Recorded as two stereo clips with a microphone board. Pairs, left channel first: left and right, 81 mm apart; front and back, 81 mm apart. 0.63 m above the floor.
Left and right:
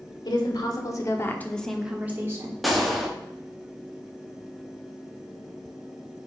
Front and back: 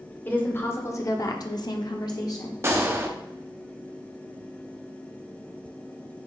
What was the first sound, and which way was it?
A woman speaking, 65° left.